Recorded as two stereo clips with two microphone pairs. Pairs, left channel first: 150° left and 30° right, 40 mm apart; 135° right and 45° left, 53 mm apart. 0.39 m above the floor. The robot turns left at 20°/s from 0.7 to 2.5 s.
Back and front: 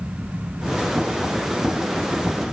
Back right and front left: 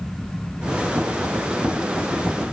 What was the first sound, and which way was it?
Only background noise.